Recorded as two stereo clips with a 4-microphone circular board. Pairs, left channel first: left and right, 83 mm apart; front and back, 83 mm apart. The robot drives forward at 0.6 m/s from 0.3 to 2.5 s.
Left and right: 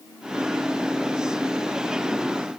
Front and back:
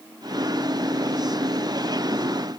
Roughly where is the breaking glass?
I don't hear breaking glass.